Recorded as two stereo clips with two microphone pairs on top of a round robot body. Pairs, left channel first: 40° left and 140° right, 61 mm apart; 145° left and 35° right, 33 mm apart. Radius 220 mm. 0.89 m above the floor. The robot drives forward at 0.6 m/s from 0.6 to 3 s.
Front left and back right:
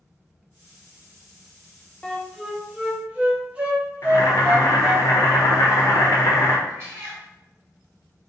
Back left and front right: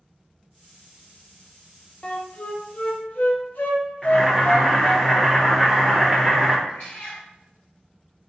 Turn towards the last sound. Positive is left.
turn(degrees=170)